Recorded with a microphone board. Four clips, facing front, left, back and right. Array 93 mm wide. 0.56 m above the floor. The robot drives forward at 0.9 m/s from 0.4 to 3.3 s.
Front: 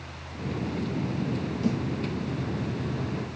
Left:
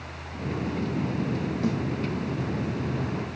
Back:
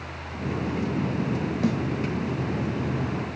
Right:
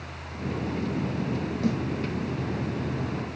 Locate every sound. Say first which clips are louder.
1.6 s a snare drum: right 1 dB, back 2 dB; 175° left, 2 m